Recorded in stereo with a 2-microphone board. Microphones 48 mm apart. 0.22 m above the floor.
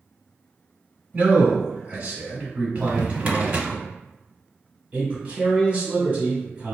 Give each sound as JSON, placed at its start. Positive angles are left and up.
{"t": 1.1, "sound": "a man speaking", "side_deg": -35, "distance_m": 1.2}
{"t": 2.8, "sound": "a drawer", "side_deg": -30, "distance_m": 0.7}
{"t": 4.9, "sound": "a man speaking", "side_deg": -30, "distance_m": 1.6}